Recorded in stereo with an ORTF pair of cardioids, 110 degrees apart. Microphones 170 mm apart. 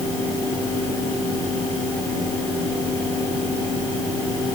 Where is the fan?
20° left, 9.5 m.